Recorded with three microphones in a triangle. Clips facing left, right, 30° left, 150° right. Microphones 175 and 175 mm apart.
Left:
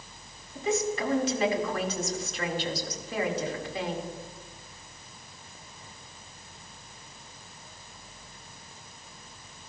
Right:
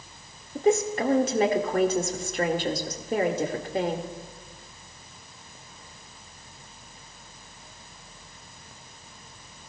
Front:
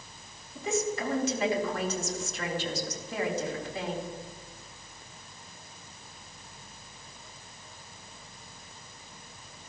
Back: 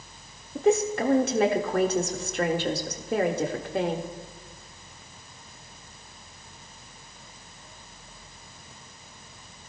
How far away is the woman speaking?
About 1.7 m.